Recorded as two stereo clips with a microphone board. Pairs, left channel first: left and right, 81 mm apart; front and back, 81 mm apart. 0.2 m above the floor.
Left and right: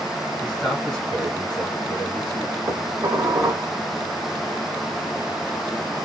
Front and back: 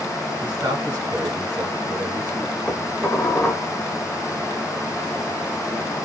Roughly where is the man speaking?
Behind.